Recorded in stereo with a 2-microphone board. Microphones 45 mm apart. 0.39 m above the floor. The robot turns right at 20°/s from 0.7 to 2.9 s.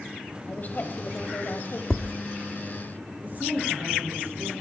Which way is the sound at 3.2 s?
40° right (ahead or behind).